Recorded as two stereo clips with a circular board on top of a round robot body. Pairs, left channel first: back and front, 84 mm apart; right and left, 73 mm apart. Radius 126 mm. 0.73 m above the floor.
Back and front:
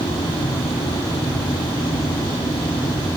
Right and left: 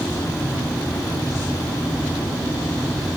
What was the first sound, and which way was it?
Only background noise.